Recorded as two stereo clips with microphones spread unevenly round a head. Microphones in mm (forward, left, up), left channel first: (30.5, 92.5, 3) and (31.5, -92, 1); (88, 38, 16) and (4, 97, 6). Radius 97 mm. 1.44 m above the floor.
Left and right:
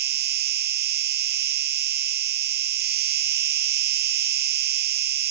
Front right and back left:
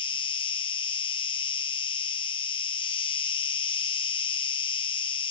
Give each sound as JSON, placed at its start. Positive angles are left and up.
{"t": 0.0, "sound": "an insect", "azimuth_deg": -70, "distance_m": 1.0}